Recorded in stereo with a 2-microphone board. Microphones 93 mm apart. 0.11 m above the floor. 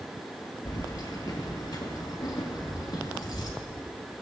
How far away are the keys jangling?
About 1.7 m.